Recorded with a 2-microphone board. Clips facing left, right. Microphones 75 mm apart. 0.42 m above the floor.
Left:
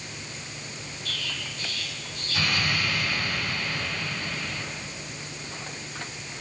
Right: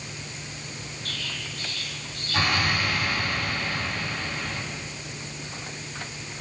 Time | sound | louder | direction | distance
1.1 | an explosion | left 1 dB | 55° right (ahead or behind) | 3.5 m